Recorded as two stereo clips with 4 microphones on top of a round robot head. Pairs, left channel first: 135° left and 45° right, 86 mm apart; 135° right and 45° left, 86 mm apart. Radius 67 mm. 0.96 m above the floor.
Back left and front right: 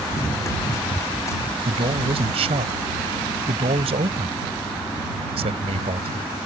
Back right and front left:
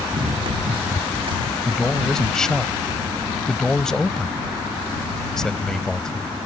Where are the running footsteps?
75° left.